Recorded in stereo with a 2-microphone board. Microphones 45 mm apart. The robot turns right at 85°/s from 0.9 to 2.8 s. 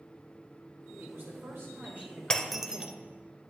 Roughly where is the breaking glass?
Centre.